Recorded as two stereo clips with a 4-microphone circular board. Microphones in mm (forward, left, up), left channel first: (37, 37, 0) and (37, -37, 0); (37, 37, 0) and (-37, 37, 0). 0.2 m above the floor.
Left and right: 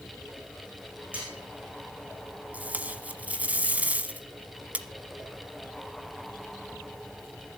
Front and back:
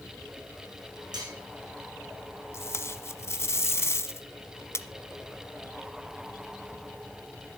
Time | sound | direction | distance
1.1 | cutlery clinking | 160° right | 7 m
2.5 | tape being pulled | 30° right | 1.1 m